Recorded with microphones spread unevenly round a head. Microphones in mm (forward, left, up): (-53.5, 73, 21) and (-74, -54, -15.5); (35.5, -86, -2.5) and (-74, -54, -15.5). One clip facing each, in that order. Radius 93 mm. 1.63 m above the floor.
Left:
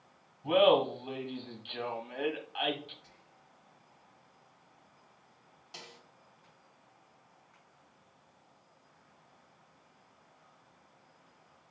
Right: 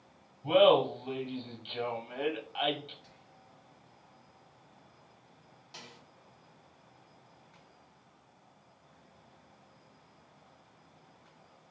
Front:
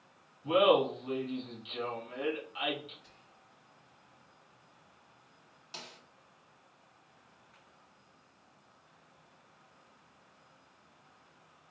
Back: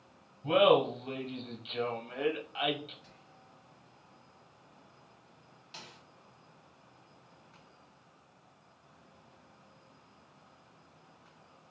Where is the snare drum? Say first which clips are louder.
Left 1 dB, front 2 dB; 20° left, 0.8 m.